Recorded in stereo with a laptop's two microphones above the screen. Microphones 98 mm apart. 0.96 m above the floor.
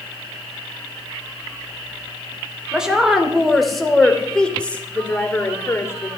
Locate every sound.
2.7 s a woman speaking: 5° right (ahead or behind), 3.5 m; by 6.1 s 30° left (ahead or behind), 3 m